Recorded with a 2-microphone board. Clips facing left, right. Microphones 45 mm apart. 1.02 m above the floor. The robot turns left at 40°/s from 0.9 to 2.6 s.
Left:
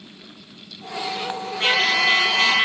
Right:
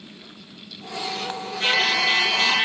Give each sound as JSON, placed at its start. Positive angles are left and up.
{"t": 1.6, "sound": "a trumpet", "azimuth_deg": 125, "distance_m": 2.5}